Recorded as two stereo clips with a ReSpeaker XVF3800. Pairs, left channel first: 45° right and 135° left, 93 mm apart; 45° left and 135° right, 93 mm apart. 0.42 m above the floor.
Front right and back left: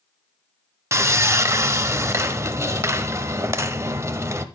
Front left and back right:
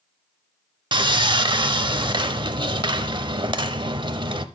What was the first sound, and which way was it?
Sawing, 165° right.